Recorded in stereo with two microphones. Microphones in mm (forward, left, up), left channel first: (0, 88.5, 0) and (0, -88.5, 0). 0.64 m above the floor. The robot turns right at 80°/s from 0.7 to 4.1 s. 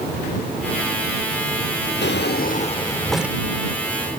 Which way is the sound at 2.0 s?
90° left.